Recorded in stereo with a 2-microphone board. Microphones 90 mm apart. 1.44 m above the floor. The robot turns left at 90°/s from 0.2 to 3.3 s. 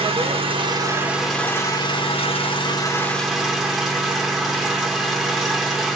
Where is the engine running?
85° right, 1.0 m; by 6.0 s 5° right, 1.0 m.